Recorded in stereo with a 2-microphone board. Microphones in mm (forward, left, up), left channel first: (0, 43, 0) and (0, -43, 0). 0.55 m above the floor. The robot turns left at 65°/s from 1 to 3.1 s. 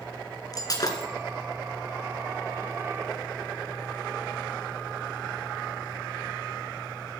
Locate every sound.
0.5 s breaking glass: 45° left (ahead or behind), 2 m; by 1.1 s 50° left (ahead or behind), 2 m